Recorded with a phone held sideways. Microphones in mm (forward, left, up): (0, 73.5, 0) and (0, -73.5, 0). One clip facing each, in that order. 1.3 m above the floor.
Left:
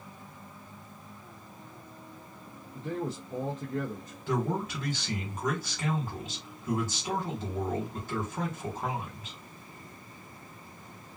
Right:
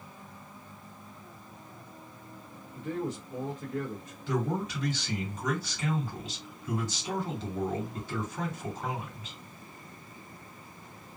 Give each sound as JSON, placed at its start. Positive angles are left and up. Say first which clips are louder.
{"t": 2.8, "sound": "a man speaking", "louder": "even", "side_deg": 35, "distance_m": 0.7}
{"t": 4.3, "sound": "a man speaking", "louder": "even", "side_deg": 60, "distance_m": 1.6}